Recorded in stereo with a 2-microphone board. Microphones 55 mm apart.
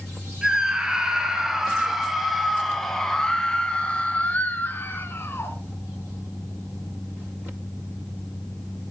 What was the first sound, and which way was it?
A scream, 15° right (ahead or behind).